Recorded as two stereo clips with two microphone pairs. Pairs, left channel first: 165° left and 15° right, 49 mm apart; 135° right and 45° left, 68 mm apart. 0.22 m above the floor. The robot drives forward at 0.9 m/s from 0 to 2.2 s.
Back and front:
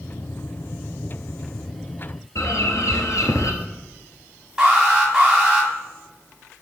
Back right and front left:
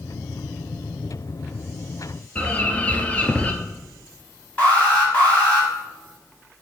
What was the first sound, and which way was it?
A bird, 160° left.